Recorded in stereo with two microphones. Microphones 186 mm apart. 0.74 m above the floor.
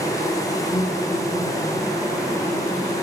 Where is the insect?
20° left (ahead or behind), 1.8 m.